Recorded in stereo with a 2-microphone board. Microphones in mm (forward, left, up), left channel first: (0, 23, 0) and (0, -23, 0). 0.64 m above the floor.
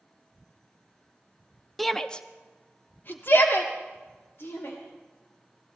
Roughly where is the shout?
Centre.